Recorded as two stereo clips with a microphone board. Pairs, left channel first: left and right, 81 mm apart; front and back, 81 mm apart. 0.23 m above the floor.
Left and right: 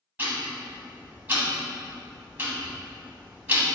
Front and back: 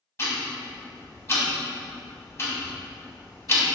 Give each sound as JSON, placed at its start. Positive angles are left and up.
{"t": 0.2, "sound": "ticking", "azimuth_deg": -35, "distance_m": 0.9}